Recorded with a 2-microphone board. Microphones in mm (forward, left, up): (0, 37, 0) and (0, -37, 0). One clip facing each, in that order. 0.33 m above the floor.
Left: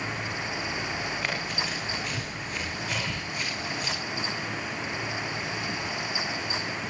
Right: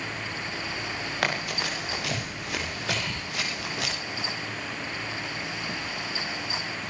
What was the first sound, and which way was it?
Running footsteps, 65° right (ahead or behind).